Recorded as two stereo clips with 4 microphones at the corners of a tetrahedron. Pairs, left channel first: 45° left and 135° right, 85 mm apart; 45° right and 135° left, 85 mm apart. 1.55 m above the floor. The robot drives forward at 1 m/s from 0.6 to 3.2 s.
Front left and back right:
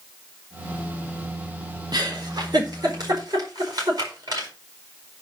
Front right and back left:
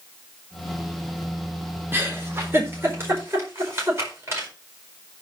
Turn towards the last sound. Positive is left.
turn(degrees=-170)